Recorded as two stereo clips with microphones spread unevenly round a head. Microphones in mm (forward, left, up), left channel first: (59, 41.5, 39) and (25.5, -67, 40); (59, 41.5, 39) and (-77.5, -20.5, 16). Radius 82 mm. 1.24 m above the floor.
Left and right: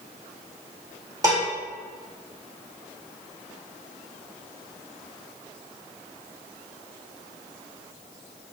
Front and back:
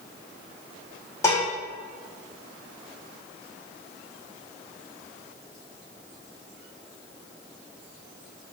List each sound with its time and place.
1.2 s dishes clattering: 50° right, 1.7 m